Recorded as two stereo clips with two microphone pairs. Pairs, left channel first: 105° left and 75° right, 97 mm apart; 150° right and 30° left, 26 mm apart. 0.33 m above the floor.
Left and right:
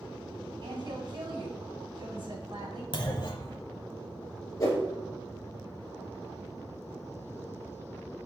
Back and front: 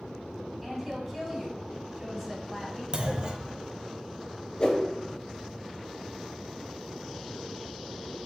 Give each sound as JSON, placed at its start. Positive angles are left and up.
{"t": 0.6, "sound": "a woman speaking", "azimuth_deg": -55, "distance_m": 2.5}
{"t": 2.9, "sound": "a clunk", "azimuth_deg": 80, "distance_m": 0.8}
{"t": 4.6, "sound": "a whoosh", "azimuth_deg": 160, "distance_m": 2.5}